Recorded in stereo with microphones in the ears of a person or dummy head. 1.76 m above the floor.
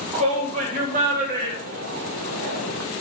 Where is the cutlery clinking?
No cutlery clinking in this recording.